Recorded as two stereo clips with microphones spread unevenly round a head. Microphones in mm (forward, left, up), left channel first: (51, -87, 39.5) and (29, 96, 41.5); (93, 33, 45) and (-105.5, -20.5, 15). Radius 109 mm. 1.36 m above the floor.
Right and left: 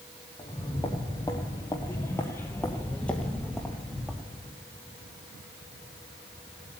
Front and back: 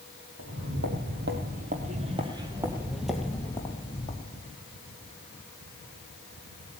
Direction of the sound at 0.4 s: 155° right.